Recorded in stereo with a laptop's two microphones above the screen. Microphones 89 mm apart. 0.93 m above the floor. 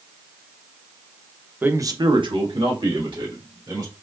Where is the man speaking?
20° right (ahead or behind), 0.7 m; by 3.9 s 60° right (ahead or behind), 3 m.